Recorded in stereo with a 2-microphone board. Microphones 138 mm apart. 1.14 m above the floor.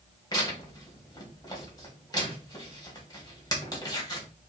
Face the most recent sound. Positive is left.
turn(degrees=30)  # may be behind; listen again after turning